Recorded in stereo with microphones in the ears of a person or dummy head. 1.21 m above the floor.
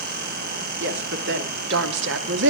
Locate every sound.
0.8 s a woman speaking: 60° right (ahead or behind), 3.5 m